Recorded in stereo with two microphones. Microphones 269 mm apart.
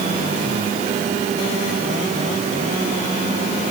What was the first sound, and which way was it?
Only background noise.